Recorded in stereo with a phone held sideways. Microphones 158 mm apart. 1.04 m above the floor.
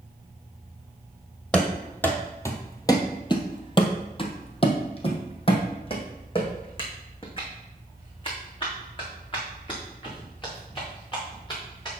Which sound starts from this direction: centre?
Running footsteps, at 1.5 s.